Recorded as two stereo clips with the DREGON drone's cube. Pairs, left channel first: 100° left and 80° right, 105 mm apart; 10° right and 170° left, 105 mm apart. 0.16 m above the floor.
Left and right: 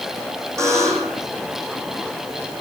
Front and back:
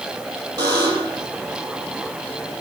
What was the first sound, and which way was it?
A buzzer, 140° right.